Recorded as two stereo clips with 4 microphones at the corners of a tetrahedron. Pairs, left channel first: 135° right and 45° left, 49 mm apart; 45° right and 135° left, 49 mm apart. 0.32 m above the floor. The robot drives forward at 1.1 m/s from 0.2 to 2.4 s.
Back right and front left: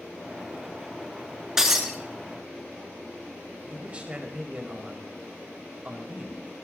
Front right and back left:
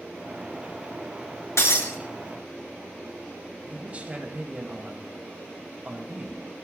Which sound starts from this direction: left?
A man speaking, at 3.6 s.